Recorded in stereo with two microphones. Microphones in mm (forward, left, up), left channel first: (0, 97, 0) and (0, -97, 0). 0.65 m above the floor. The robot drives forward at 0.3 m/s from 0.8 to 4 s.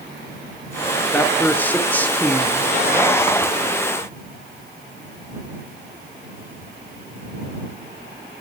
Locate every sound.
1.1 s a man speaking: 10° left (ahead or behind), 1.3 m